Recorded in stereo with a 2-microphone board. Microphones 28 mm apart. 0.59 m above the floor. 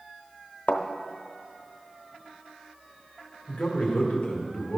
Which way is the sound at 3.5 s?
25° left (ahead or behind).